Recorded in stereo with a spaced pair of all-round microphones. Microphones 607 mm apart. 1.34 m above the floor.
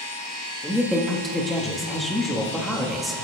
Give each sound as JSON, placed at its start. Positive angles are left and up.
{"t": 0.6, "sound": "a woman speaking", "side_deg": 0, "distance_m": 2.0}